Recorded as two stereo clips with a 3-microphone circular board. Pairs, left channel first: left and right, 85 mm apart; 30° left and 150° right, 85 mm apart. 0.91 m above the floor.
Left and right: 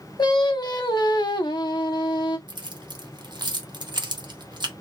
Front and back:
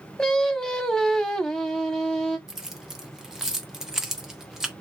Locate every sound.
0.2 s singing: 110° left, 0.7 m
2.5 s keys jangling: 65° right, 0.7 m